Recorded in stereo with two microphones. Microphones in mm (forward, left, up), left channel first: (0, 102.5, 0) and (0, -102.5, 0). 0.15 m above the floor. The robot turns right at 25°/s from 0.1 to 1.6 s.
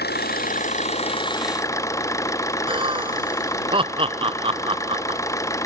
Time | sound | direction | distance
0.0 | an engine running | 130° left | ?
2.7 | laughter | 25° right (ahead or behind) | ?